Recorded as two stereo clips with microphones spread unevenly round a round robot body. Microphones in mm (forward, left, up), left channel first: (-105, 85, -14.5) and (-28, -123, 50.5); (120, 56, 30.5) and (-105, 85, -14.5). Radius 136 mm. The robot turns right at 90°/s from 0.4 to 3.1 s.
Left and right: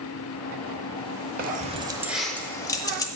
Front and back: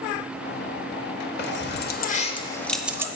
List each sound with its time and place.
1.4 s keys jangling: 25° right, 0.7 m; by 3.1 s 130° left, 0.7 m